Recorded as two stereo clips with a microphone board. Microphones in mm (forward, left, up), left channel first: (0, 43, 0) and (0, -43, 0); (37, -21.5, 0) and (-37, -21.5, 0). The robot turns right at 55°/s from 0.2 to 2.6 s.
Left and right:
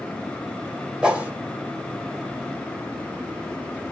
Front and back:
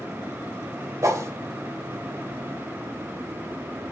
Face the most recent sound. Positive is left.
turn(degrees=-80)